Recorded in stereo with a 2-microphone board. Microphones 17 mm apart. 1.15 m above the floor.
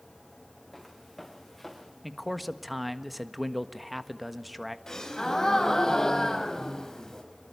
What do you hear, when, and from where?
0.7 s footsteps: 5° right (ahead or behind), 6 m; by 1.9 s centre (ahead or behind), 5.5 m
2.0 s a man speaking: centre (ahead or behind), 1.5 m
4.9 s a gasp: 35° left (ahead or behind), 4.5 m